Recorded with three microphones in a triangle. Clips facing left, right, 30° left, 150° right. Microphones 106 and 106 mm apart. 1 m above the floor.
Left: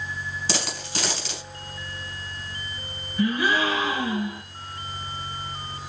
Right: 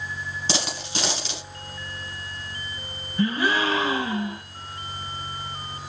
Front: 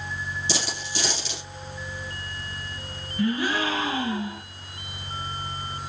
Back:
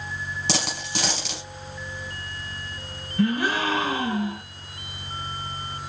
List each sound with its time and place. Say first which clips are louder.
0.5 s a dropped coin: right 2 dB, back 5 dB; 160° right, 3 m
3.2 s a gasp: even, back 2 dB; 145° right, 3.5 m